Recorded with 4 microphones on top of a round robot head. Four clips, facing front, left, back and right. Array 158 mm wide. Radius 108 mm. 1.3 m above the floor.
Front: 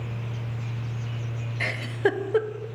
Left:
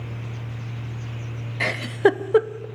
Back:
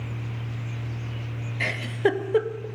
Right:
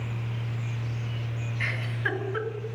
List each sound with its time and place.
1.6 s a giggle: 90° left, 0.7 m